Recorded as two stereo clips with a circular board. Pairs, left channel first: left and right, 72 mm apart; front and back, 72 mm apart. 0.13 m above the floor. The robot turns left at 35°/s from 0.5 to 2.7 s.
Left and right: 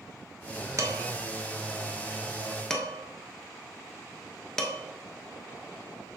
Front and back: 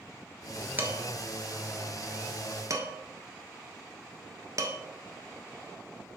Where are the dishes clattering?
125° right, 1.2 m; by 4.8 s 170° left, 1.2 m.